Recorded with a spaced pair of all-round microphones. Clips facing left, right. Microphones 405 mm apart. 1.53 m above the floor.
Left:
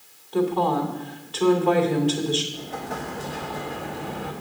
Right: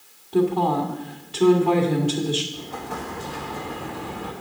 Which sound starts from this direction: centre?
An explosion, at 2.5 s.